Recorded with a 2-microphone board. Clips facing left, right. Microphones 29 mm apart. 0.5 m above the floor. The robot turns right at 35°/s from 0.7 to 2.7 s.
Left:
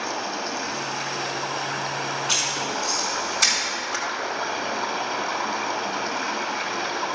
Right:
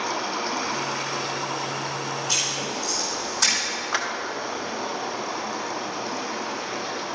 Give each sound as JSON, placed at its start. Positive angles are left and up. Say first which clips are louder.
{"t": 0.0, "sound": "running water", "louder": "right 1 dB", "azimuth_deg": 0, "distance_m": 1.4}
{"t": 2.3, "sound": "writing", "louder": "left 1 dB", "side_deg": 70, "distance_m": 4.5}
{"t": 3.9, "sound": "a clap", "louder": "right 5 dB", "side_deg": -25, "distance_m": 1.3}